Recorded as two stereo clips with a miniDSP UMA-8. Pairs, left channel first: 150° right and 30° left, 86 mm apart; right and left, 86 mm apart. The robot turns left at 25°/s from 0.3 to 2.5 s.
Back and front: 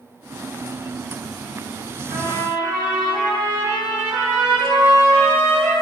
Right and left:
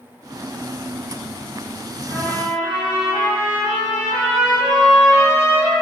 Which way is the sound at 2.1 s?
110° right.